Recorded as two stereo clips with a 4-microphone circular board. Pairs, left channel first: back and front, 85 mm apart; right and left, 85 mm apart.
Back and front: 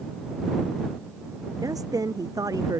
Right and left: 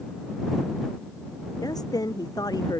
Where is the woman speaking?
50° right.